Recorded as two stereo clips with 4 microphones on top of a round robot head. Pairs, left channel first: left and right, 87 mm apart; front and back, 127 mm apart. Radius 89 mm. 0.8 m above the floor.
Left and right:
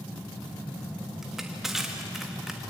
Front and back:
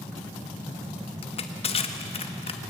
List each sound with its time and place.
1.2 s crushing: 5° right, 1.5 m